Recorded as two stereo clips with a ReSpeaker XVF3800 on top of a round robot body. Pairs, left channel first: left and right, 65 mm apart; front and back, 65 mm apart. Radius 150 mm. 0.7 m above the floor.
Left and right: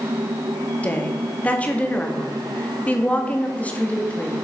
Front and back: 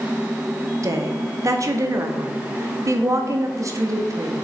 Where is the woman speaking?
155° left, 2.0 m.